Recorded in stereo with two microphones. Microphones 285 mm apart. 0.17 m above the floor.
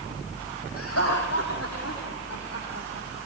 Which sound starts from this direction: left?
Laughter, at 0.8 s.